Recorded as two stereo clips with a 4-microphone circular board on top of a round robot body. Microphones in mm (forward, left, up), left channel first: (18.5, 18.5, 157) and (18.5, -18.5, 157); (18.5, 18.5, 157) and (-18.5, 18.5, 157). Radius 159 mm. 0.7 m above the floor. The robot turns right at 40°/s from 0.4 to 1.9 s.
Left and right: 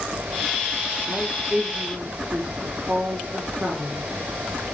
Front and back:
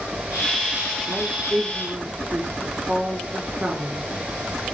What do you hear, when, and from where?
1.1 s a woman speaking: 175° left, 3.5 m; by 4.0 s 150° right, 3.5 m